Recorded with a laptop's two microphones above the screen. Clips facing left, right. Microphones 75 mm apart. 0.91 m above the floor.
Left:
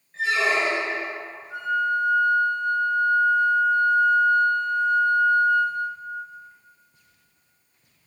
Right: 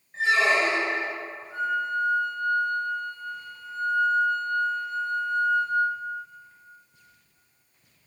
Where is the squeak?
25° right (ahead or behind), 0.9 m.